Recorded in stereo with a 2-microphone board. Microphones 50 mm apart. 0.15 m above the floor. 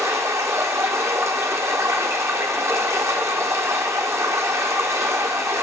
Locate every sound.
0.0 s running water: 75° right (ahead or behind), 1.1 m